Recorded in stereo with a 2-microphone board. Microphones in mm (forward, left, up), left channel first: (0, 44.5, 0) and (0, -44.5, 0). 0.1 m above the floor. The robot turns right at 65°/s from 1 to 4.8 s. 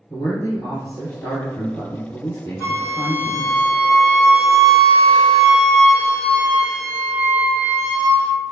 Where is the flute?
145° right, 1.2 m; by 8.4 s straight ahead, 1.2 m.